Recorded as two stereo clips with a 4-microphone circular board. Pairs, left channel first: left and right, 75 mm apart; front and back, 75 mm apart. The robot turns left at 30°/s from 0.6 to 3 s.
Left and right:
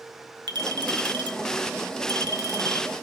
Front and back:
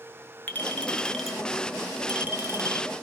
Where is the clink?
65° right, 1.3 m; by 2.9 s 135° right, 1.3 m.